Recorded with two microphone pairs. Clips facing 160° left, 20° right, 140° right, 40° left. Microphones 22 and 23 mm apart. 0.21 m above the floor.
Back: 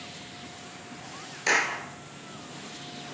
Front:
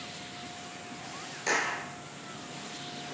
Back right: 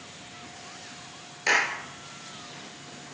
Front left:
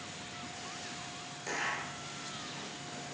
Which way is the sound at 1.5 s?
150° right.